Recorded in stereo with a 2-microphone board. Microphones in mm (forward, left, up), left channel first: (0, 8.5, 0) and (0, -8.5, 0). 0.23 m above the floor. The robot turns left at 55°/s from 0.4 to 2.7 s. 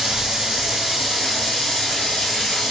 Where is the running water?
150° right, 2 m; by 2.7 s 85° left, 2 m.